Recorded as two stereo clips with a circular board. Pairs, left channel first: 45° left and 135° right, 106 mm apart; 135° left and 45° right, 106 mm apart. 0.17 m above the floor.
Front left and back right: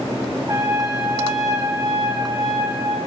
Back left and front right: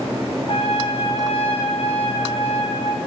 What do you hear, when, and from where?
0.5 s a trumpet: 165° left, 1.6 m